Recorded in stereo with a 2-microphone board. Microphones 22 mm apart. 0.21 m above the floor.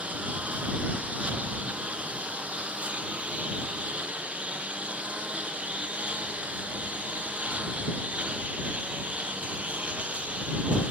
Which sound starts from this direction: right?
A lawn mower, at 0.0 s.